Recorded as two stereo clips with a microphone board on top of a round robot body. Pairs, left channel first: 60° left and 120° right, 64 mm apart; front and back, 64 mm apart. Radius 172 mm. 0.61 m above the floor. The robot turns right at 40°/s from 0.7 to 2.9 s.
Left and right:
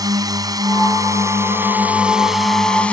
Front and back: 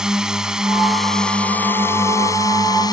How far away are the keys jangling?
No keys jangling in this recording.